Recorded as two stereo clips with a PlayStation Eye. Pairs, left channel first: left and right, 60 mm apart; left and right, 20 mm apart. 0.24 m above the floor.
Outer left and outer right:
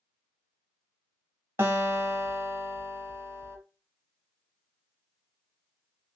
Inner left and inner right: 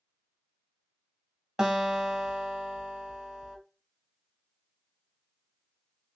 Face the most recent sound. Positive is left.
turn(degrees=-40)  # may be behind; listen again after turning